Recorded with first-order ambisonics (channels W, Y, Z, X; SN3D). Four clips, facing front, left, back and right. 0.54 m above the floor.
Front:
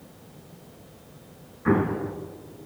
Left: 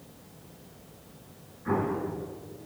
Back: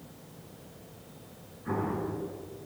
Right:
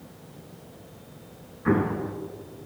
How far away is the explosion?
About 2.5 m.